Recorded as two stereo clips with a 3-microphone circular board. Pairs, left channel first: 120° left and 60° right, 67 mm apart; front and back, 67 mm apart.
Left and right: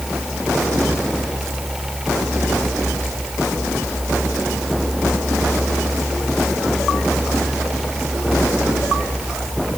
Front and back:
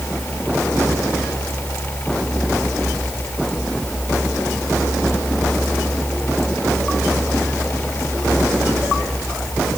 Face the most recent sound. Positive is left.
No sound to turn to.